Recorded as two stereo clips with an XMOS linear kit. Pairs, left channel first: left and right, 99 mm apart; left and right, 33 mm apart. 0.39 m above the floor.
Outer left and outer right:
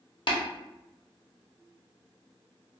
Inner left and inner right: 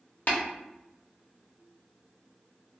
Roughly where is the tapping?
Left.